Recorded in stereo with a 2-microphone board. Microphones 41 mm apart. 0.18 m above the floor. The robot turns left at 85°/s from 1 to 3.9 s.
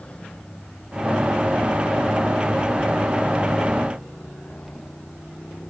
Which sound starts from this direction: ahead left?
A motorcycle, at 0.0 s.